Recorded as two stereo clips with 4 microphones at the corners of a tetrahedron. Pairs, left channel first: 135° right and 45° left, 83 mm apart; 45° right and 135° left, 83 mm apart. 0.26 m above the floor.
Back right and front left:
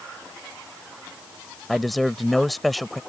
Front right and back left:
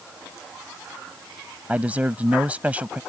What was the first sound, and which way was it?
A man speaking, 135° left.